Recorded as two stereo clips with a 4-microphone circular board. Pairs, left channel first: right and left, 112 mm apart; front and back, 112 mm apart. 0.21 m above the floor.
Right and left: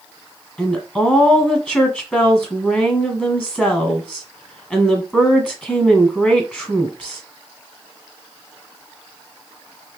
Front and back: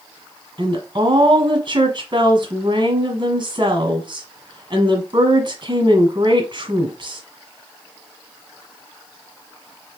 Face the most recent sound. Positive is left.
turn(degrees=-160)